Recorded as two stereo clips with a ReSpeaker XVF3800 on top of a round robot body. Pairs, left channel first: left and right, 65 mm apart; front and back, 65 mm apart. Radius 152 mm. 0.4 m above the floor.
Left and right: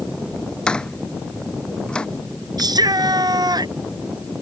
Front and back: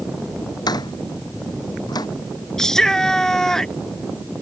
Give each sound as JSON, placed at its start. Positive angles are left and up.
{"t": 0.7, "sound": "a door slam", "azimuth_deg": 15}
{"t": 2.6, "sound": "a shout", "azimuth_deg": -80}